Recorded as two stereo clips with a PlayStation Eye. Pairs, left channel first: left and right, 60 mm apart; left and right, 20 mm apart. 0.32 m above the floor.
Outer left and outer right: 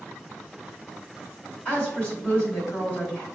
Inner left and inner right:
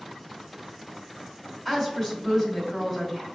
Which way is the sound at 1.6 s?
20° left (ahead or behind).